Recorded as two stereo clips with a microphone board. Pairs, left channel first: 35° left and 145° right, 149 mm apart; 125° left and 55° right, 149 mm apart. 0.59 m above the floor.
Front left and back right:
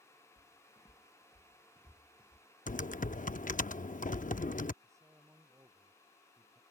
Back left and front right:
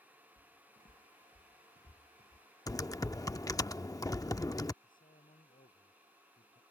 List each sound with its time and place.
0.4 s footsteps: 105° left; by 2.5 s 115° left
2.7 s typing on a keyboard: 60° left
4.8 s a man speaking: 145° left